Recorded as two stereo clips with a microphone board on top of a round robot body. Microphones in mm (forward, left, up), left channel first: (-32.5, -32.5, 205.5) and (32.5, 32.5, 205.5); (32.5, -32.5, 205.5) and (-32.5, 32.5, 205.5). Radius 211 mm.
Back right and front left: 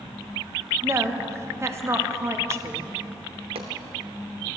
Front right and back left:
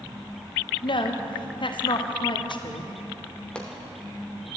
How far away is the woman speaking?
About 1.6 m.